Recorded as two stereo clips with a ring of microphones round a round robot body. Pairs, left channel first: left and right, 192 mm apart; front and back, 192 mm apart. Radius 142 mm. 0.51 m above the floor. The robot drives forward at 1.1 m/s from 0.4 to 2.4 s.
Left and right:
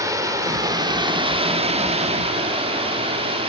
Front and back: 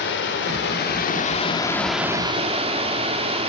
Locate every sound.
0.0 s running water: 20° right, 2.0 m; by 3.5 s 135° right, 1.2 m